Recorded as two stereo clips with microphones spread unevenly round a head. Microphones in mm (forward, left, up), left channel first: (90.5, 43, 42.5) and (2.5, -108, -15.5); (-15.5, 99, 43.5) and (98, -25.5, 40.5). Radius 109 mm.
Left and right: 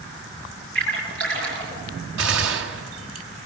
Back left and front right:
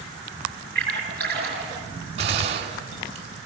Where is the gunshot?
110° right, 1.6 m.